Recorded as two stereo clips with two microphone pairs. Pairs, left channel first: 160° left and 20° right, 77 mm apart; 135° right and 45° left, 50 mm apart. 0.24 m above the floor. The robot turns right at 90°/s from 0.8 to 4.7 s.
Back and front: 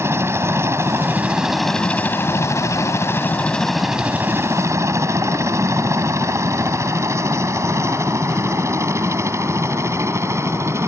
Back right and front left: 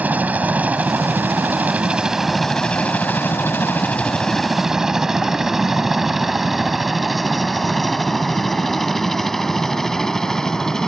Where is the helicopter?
10° left; by 10.9 s 60° right.